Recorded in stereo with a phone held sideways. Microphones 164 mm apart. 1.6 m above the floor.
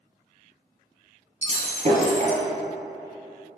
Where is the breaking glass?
40° right (ahead or behind), 2 m.